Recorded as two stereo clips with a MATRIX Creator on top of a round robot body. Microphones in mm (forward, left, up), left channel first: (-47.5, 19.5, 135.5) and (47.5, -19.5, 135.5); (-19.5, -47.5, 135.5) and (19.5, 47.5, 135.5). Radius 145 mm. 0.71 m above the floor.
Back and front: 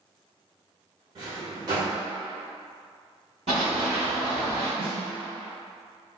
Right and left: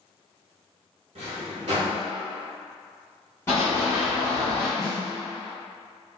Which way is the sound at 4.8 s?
60° right.